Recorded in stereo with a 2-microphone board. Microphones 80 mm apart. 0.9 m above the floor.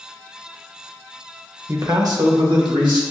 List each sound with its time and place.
1.7 s a man speaking: 30° right (ahead or behind), 0.6 m; by 3.0 s 75° right (ahead or behind), 1.7 m